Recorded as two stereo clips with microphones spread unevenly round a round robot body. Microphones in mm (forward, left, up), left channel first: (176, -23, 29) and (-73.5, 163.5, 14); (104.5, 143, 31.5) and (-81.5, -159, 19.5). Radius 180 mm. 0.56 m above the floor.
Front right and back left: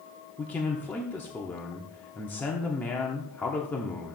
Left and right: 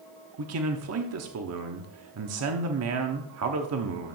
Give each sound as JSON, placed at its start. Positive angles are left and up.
{"t": 0.4, "sound": "a man speaking", "azimuth_deg": -120, "distance_m": 1.0}